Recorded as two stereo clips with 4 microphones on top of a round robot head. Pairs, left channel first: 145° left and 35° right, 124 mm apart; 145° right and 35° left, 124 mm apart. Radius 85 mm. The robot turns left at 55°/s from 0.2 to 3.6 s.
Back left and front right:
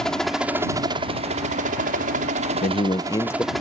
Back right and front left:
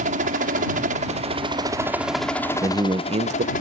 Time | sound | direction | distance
0.0 | a helicopter | 55° left | ?
2.6 | a man speaking | 110° left | ?